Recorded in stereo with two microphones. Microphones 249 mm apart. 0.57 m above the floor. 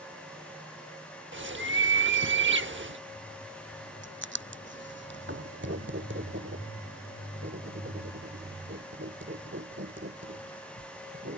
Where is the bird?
50° right (ahead or behind).